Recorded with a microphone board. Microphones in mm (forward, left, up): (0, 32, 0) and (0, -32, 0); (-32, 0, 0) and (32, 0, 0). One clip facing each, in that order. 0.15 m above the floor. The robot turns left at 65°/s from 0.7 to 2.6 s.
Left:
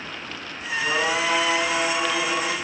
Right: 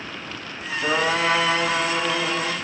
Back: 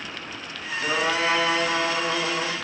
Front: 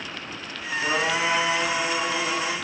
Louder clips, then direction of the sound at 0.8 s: Right 2 dB, back 1 dB; 95° right.